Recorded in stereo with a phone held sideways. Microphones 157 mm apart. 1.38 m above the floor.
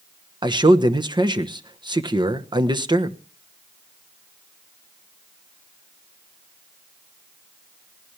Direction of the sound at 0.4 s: 30° right (ahead or behind).